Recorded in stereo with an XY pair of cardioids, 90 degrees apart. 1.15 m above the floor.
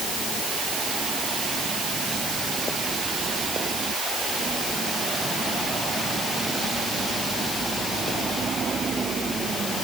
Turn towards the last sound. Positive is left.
No sound to turn to.